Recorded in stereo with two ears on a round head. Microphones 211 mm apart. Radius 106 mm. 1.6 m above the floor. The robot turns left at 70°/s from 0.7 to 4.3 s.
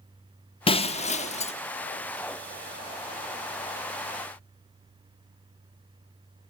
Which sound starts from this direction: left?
Breaking glass, at 0.7 s.